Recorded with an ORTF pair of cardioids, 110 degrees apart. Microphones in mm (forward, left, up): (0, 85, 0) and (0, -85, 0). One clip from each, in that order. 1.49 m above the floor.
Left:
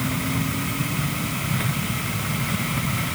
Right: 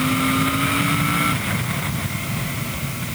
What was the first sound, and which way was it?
Only background noise.